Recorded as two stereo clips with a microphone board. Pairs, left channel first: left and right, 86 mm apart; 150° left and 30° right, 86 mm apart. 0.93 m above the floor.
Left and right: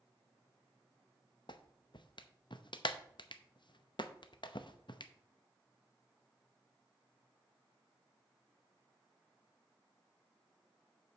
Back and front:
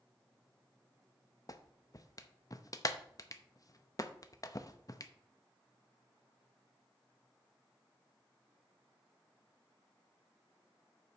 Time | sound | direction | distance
1.5 | a clap | 105° left | 0.7 m